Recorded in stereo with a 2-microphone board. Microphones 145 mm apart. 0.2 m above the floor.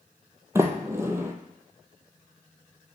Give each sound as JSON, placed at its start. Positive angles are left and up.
{"t": 0.6, "sound": "a sliding door", "side_deg": -15, "distance_m": 0.9}